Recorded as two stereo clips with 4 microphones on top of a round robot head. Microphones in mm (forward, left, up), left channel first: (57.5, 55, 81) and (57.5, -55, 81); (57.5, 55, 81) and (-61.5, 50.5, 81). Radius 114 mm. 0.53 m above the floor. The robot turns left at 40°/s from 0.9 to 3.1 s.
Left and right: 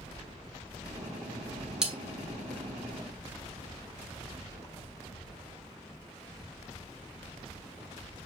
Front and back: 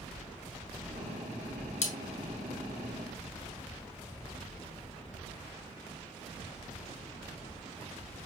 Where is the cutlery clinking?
5° right, 1.1 m; by 1.9 s 10° right, 1.1 m.